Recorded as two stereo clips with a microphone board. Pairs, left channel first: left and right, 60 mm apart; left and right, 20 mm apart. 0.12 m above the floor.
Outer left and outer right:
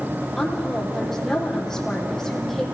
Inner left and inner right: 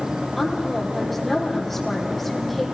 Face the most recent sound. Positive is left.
turn(degrees=5)  # may be behind; listen again after turning